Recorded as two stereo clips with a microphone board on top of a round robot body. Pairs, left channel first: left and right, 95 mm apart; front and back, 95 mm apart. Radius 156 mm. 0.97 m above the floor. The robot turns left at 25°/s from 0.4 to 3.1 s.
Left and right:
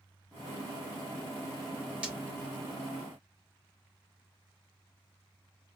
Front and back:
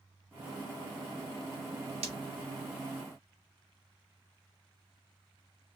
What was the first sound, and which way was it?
Breaking glass, 170° right.